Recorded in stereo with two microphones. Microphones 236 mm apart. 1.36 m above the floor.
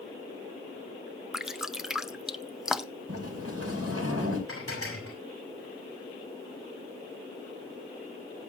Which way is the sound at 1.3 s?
Centre (ahead or behind).